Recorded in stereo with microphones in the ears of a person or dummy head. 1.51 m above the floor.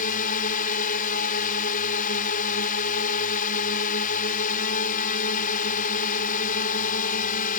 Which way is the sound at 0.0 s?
45° left (ahead or behind).